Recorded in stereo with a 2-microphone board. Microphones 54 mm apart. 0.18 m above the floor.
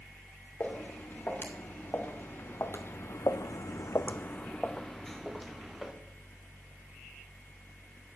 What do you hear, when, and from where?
0.6 s footsteps: 35° left (ahead or behind), 3.5 m; by 5.9 s 5° right (ahead or behind), 2.5 m